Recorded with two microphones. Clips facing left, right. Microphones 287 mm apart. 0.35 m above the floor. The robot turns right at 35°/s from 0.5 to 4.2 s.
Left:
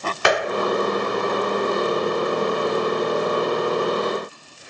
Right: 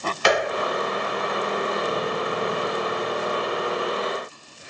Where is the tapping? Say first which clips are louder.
Left 1 dB; 55° left (ahead or behind), 2 m.